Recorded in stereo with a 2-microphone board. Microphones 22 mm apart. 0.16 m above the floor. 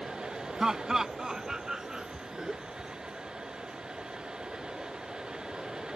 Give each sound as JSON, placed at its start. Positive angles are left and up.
{"t": 0.6, "sound": "laughter", "side_deg": -25}